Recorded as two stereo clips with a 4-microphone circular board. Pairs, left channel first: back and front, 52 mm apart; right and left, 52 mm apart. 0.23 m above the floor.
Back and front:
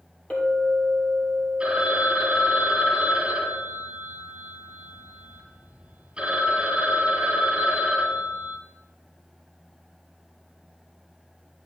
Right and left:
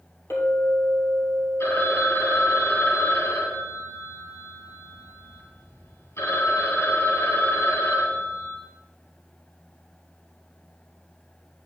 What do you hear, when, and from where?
0.3 s a clink: 120° right, 3.5 m
1.6 s a phone ringing: 70° right, 3 m